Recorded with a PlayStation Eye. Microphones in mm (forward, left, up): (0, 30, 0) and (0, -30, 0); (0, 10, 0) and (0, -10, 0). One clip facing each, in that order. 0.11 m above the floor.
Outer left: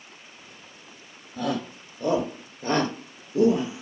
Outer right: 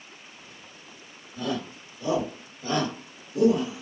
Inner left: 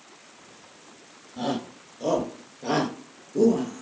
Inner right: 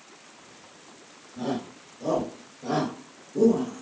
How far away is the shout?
About 2.5 m.